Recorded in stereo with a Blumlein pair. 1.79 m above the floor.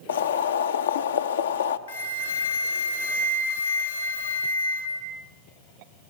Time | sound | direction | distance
0.1 | boiling | 65° left | 0.6 m
1.9 | a flute | 70° left | 1.6 m